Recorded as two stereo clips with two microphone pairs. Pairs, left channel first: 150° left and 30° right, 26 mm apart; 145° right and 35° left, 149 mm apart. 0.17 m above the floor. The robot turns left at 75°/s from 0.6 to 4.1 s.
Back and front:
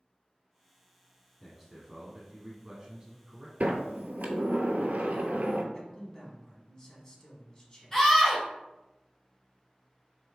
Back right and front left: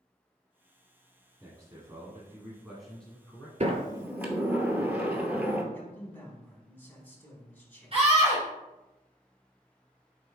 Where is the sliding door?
5° right, 0.7 m; by 5.6 s 40° right, 0.7 m.